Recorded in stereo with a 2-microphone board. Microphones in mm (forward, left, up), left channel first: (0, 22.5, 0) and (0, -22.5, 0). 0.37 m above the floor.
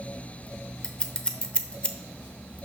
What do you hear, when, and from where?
0.8 s scissors: 20° left (ahead or behind), 0.7 m